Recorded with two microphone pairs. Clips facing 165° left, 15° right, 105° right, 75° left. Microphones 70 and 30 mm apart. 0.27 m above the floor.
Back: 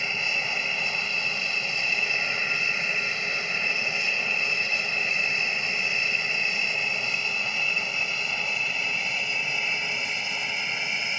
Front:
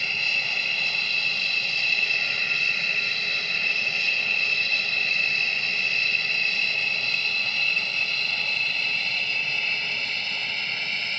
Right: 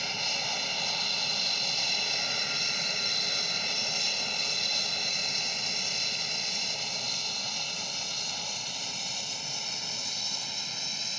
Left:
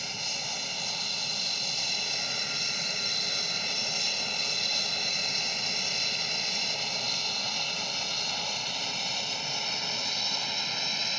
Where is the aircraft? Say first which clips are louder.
Even, right 3 dB; 155° right; by 11.2 s 105° left.